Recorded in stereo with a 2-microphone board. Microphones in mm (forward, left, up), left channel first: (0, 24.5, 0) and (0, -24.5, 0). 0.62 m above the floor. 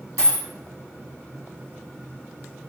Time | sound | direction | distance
0.2 | a dropped coin | 75° left (ahead or behind) | 1.1 m